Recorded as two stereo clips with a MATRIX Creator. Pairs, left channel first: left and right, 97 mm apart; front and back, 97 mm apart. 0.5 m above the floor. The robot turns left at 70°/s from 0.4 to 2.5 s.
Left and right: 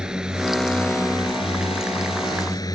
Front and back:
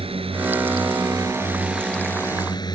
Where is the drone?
170° right; by 2.8 s 40° left.